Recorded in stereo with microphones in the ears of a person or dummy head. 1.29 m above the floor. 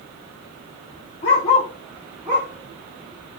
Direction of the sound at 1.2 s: 30° left (ahead or behind).